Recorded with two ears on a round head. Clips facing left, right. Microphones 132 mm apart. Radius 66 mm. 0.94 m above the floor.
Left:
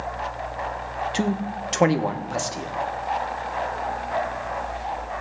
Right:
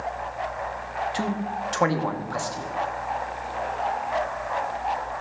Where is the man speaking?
25° left (ahead or behind), 1.0 m.